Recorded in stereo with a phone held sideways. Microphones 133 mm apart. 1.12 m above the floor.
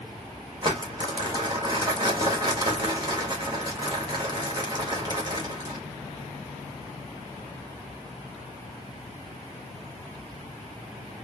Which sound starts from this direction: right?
Crumpling, at 0.6 s.